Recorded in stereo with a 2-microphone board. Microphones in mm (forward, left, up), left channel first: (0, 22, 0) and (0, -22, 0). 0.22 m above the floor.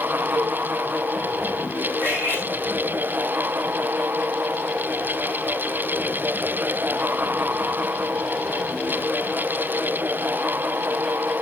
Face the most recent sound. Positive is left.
turn(degrees=-55)  # may be behind; listen again after turning